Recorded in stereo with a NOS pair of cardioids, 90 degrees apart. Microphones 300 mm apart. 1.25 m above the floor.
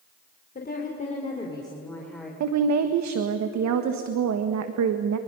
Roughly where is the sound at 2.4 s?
Ahead right.